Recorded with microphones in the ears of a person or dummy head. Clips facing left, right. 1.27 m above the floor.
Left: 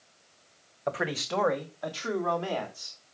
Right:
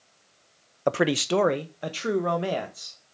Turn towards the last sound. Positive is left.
turn(degrees=-25)  # may be behind; listen again after turning